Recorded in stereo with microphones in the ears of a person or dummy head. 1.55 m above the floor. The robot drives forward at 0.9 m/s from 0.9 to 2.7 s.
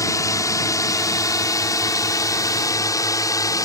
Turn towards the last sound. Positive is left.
turn(degrees=20)  # may be behind; listen again after turning